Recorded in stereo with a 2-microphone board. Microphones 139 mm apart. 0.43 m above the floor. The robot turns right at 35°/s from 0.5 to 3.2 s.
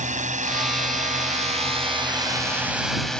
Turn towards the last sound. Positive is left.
turn(degrees=5)  # may be behind; listen again after turning